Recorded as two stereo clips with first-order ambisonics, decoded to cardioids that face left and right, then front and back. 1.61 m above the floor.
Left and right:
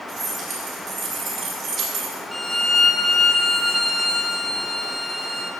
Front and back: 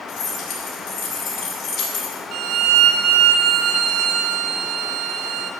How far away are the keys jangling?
About 3 m.